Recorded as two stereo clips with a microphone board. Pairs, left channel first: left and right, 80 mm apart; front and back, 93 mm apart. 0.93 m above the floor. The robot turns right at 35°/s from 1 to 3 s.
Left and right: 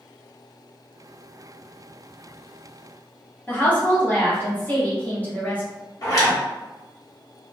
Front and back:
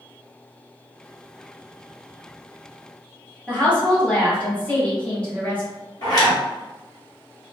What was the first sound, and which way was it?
A woman speaking, 55° left.